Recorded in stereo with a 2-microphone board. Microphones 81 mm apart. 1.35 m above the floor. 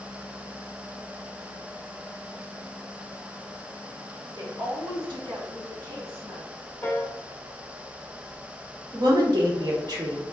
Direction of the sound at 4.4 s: 60° right (ahead or behind).